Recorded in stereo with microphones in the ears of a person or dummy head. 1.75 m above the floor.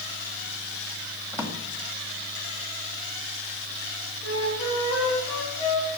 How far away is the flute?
About 9 m.